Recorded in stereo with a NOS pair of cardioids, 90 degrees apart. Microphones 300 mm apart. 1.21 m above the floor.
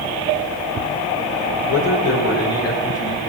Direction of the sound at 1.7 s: 65° left.